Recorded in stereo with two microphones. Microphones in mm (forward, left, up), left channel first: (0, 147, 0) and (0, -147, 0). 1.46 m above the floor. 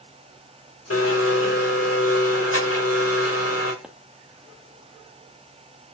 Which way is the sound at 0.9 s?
55° left (ahead or behind).